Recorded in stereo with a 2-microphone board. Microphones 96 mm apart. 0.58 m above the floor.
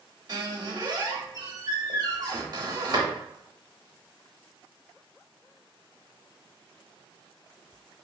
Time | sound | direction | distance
0.3 | a squeak | 45° right (ahead or behind) | 0.9 m